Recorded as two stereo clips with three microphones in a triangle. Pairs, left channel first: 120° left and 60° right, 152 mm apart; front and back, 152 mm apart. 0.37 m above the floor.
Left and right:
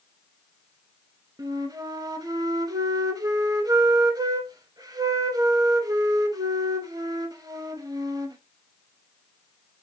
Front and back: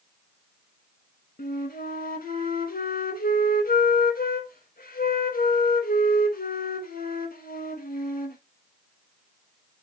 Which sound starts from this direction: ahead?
A flute, at 1.4 s.